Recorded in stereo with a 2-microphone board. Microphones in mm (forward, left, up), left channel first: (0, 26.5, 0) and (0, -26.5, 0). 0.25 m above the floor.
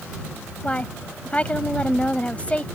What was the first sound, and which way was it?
A woman speaking, 25° left (ahead or behind).